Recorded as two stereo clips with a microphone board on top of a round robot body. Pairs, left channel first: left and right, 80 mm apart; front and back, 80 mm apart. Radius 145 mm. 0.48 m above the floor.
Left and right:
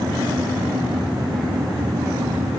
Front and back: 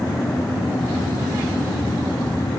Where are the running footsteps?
No running footsteps in this recording.